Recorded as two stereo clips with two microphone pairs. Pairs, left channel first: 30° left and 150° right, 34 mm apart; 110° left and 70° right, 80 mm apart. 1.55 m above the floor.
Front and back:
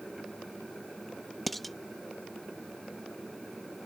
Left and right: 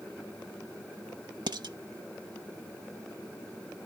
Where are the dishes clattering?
55° right.